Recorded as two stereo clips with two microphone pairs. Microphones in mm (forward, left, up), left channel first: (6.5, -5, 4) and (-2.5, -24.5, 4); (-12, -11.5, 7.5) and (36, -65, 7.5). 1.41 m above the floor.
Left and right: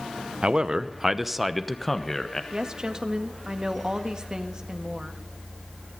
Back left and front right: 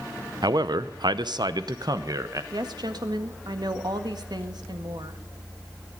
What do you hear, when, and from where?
0.4 s a man speaking: 70° right, 0.8 m; by 2.4 s 10° right, 1.3 m
2.5 s a woman speaking: 60° right, 1.7 m